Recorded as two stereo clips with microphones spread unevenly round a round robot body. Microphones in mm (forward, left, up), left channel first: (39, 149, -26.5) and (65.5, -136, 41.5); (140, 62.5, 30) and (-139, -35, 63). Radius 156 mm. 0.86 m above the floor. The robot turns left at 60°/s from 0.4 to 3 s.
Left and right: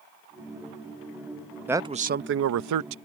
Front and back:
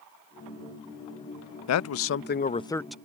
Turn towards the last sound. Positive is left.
turn(degrees=-70)